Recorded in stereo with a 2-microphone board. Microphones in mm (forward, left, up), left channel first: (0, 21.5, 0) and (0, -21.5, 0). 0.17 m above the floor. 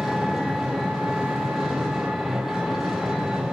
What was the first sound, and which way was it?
An engine running, 5° right (ahead or behind).